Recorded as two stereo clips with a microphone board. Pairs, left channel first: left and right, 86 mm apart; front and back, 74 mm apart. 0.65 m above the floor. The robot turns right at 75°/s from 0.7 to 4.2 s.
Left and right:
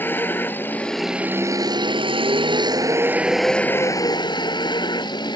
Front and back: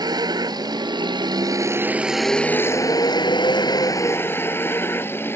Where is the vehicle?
155° left; by 5.4 s 60° left.